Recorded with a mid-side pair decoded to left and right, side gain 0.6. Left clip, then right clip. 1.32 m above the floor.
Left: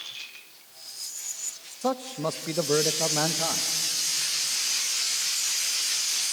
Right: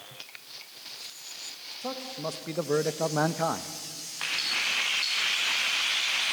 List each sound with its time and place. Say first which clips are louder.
1.8 s a man speaking: left 7 dB; 45° left, 1.4 m; by 3.7 s 35° right, 1.3 m